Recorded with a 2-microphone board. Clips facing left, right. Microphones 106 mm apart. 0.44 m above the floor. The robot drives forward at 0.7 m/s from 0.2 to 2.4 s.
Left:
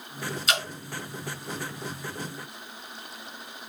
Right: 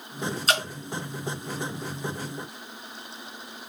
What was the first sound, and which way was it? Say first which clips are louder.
Dripping: right 3 dB; 40° right (ahead or behind).